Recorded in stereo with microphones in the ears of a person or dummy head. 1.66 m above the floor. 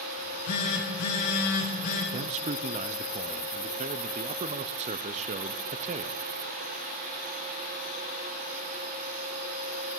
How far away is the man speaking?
About 0.6 m.